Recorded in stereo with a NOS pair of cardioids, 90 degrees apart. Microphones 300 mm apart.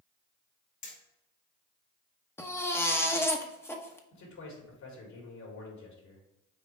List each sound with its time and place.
0.8 s hammering: 65° left, 2.5 m
2.4 s a baby crying: 10° left, 1.0 m
4.1 s a man speaking: 65° left, 3.5 m